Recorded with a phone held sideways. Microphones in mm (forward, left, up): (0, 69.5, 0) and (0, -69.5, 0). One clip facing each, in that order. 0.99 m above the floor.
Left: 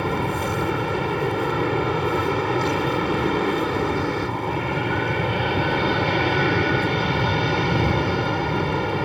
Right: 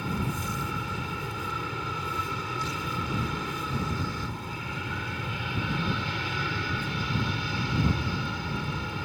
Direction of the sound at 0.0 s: 70° left (ahead or behind).